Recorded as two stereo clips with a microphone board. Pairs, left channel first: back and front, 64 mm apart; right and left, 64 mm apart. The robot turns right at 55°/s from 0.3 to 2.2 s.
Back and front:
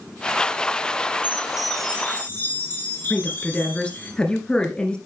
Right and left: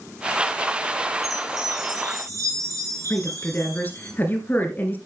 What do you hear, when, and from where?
1.2 s a chime: 65° left, 2.5 m; by 4.1 s 120° left, 2.5 m
3.1 s a woman speaking: 120° right, 1.7 m